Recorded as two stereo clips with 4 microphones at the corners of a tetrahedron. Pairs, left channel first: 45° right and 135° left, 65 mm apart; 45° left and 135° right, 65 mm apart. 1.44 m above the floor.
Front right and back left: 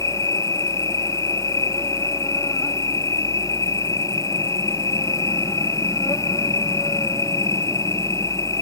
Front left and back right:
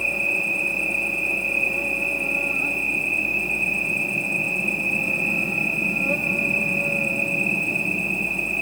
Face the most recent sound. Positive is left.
turn(degrees=-50)